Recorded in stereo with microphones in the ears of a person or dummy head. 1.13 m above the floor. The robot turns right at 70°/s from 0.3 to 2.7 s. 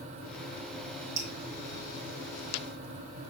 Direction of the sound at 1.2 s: 20° right (ahead or behind).